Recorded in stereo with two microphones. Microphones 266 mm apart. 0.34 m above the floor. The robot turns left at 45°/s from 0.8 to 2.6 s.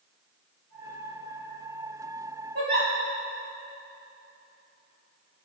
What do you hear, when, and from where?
2.5 s a giggle: 55° right (ahead or behind), 2.5 m; by 2.9 s 50° right (ahead or behind), 2.5 m